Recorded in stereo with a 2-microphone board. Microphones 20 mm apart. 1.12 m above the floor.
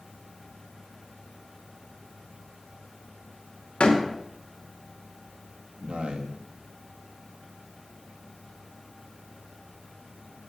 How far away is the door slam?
About 2.5 m.